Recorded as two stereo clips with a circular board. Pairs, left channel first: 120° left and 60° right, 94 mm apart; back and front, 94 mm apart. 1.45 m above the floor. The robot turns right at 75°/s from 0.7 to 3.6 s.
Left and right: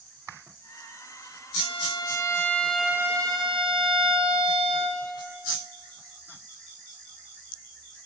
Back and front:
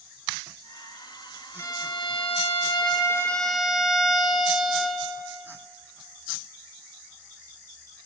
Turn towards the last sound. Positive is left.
turn(degrees=-85)